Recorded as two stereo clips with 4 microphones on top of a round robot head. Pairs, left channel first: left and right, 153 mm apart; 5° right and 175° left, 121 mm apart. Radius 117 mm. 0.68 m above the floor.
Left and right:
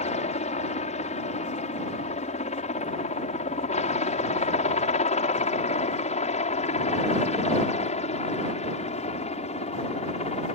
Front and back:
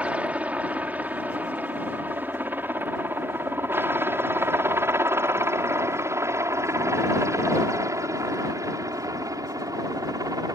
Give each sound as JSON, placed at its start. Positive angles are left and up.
{"t": 0.0, "sound": "a helicopter", "azimuth_deg": 100}